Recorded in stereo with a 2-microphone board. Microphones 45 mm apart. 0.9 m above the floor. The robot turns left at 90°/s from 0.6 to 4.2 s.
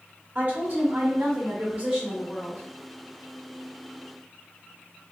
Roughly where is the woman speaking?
Ahead right.